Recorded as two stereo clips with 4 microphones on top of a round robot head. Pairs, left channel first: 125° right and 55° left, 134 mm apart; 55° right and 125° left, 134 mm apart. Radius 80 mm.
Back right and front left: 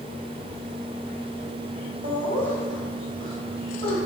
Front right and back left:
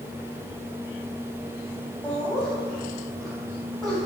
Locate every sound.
2.0 s laughter: 30° left, 3 m; by 4.0 s 35° left, 5 m